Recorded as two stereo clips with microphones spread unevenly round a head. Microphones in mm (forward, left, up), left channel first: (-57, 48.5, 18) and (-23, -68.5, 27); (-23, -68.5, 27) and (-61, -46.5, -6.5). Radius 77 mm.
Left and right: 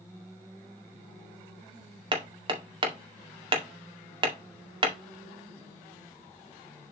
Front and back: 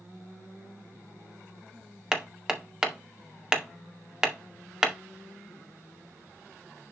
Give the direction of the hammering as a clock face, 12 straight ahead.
4 o'clock.